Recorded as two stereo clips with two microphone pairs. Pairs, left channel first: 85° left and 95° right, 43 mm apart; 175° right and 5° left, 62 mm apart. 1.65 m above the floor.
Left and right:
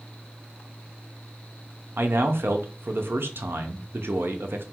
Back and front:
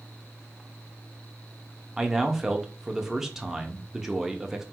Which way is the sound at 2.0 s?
80° right.